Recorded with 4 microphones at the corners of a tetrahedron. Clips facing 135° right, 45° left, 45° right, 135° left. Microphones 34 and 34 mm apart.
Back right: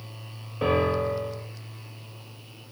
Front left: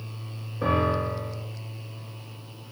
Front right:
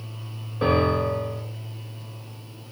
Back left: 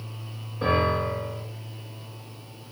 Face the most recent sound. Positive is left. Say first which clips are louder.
# back right 1 dB, front right 2 dB
turn(degrees=-105)